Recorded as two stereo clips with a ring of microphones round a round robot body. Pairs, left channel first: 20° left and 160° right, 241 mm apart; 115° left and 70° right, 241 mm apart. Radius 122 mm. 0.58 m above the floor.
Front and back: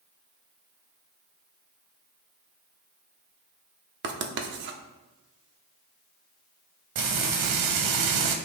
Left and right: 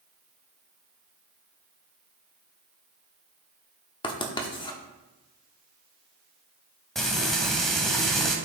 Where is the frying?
160° right, 1.1 m.